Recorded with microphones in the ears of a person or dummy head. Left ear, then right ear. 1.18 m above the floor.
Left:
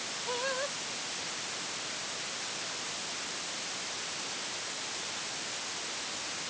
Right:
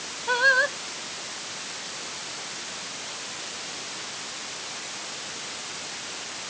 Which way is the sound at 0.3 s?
60° right (ahead or behind).